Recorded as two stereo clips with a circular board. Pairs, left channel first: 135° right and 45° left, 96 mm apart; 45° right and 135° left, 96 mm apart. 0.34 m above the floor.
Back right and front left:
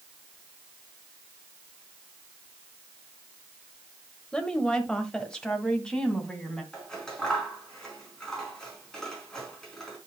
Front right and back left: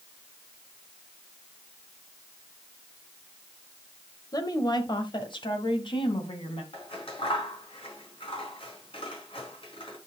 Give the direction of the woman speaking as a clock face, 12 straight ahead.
2 o'clock.